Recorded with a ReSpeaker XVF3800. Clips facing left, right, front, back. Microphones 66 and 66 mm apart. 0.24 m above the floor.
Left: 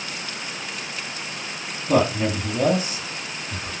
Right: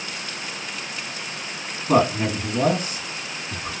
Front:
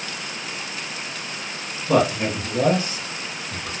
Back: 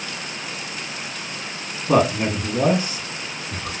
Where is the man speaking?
120° right, 2.0 m.